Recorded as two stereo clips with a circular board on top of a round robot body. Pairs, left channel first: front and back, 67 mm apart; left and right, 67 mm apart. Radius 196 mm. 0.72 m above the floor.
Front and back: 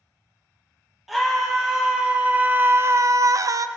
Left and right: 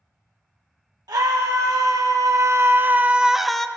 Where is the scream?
95° right, 1.3 m; by 3.7 s 170° left, 0.8 m.